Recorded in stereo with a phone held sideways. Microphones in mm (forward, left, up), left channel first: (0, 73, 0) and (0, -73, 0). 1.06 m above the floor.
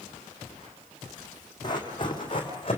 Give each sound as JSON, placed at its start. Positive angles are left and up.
{"t": 1.6, "sound": "running footsteps", "side_deg": 30, "distance_m": 3.5}